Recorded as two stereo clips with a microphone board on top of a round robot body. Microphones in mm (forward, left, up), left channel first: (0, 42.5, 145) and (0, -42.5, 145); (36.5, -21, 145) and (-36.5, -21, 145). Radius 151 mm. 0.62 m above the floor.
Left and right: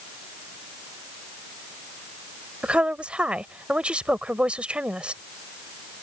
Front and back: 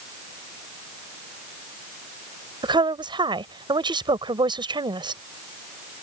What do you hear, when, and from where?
2.6 s a woman speaking: 170° right